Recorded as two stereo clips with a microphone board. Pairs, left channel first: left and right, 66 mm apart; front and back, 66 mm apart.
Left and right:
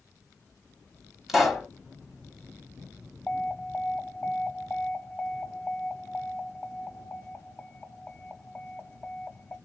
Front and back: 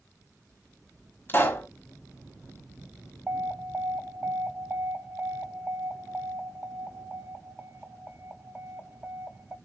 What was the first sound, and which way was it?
A pop, 5° right.